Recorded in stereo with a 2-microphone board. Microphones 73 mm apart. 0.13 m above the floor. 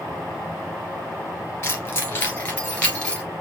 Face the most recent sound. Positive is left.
turn(degrees=15)  # may be behind; listen again after turning